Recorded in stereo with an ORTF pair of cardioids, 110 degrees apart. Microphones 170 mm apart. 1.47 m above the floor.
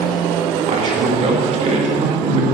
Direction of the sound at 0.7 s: 40° right.